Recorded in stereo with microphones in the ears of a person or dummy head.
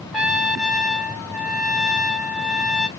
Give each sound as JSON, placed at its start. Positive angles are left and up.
{"t": 0.1, "sound": "a trumpet", "side_deg": 0, "distance_m": 1.3}